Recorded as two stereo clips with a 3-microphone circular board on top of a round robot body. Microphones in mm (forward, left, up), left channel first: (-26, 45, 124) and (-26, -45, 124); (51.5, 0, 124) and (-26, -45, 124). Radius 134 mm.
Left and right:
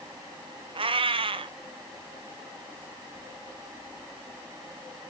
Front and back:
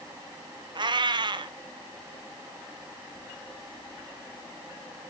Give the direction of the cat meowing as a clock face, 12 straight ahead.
4 o'clock.